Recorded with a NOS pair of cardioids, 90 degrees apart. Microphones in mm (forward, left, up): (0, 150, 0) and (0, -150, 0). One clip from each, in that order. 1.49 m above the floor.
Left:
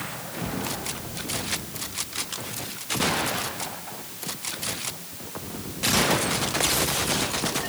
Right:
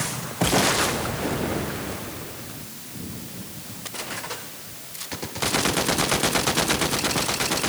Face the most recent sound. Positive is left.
No sound to turn to.